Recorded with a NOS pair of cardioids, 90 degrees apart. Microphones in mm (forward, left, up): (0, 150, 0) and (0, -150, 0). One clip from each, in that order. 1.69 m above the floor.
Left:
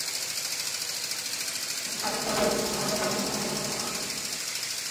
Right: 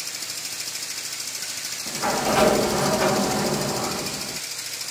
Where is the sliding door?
50° right.